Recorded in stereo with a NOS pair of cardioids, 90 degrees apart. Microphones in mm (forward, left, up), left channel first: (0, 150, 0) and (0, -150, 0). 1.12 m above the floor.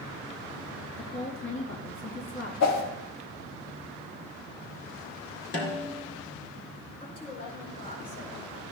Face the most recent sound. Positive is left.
turn(degrees=25)